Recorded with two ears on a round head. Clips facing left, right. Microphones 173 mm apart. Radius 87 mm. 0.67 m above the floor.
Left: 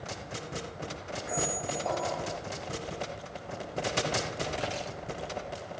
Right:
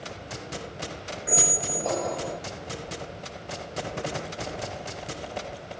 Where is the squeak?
40° right (ahead or behind), 0.6 m.